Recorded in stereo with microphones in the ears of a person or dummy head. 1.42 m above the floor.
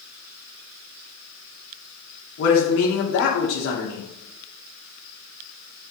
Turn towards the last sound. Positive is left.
turn(degrees=65)  # may be behind; listen again after turning